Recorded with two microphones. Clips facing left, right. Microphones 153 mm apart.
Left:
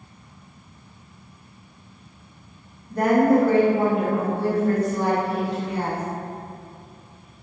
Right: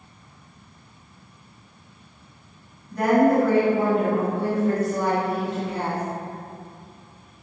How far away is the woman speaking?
About 0.9 m.